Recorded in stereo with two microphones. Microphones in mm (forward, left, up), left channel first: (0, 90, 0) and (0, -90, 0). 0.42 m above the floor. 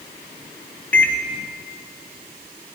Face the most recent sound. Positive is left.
turn(degrees=10)  # may be behind; listen again after turning